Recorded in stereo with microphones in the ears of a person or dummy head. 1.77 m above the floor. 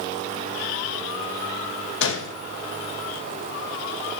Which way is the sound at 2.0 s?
75° left (ahead or behind).